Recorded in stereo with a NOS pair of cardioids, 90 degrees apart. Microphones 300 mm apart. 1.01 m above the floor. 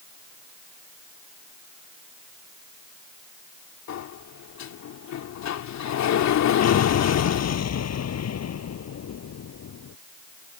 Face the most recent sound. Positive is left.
turn(degrees=55)